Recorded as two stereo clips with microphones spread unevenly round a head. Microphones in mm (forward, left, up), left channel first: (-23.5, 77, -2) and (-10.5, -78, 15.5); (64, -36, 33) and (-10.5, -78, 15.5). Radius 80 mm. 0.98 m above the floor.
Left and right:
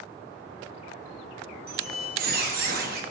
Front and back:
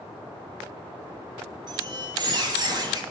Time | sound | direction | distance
1.7 | a squeak | 115° right | 1.2 m